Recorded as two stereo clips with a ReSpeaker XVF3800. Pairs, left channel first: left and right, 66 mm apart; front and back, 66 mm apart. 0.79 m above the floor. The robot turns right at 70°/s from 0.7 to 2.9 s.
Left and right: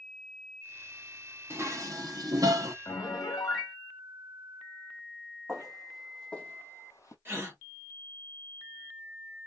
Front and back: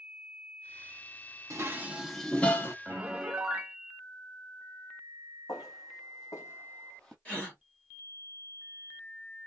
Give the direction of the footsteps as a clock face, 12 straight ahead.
12 o'clock.